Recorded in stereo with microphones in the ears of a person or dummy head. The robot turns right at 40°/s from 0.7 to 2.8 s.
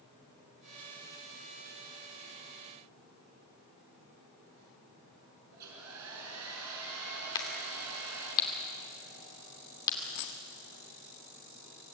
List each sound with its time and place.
5.5 s a hair dryer: 80° right, 4.5 m
7.3 s a crack: 20° left (ahead or behind), 2.5 m
10.0 s a dropped coin: 55° left (ahead or behind), 1.4 m